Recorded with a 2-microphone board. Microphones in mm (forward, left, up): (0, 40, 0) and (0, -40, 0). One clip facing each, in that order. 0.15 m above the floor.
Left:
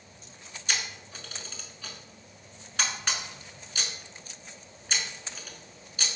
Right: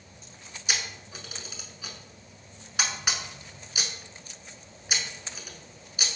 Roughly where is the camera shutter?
Centre.